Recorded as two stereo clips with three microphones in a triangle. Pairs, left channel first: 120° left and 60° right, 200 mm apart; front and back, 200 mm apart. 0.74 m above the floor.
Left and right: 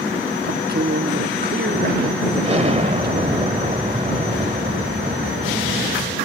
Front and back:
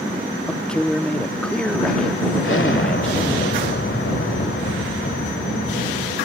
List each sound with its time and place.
0.5 s a man speaking: 85° right
2.4 s an explosion: straight ahead